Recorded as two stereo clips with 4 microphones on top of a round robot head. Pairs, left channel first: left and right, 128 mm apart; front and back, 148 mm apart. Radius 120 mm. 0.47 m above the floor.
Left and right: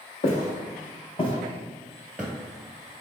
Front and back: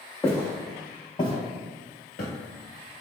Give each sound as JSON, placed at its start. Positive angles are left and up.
{"t": 0.2, "sound": "footsteps", "azimuth_deg": 80, "distance_m": 1.0}